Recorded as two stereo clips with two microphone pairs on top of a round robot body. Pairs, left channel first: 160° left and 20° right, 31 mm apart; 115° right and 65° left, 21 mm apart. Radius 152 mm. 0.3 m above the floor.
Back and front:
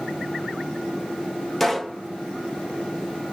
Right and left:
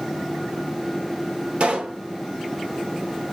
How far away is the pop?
About 1.0 m.